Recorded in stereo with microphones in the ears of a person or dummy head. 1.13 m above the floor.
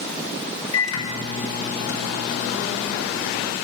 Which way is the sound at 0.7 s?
75° left (ahead or behind).